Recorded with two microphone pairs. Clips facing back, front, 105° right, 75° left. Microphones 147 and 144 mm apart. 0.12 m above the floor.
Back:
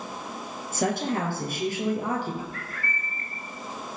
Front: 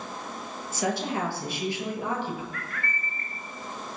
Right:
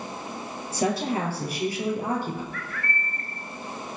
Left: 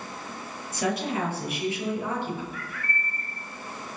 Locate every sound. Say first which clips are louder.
0.7 s a woman speaking: back 2 dB, right 2 dB; 160° right, 3 m; by 2.4 s 140° right, 3 m
2.5 s a bird: even, right 2 dB; 145° left, 1.8 m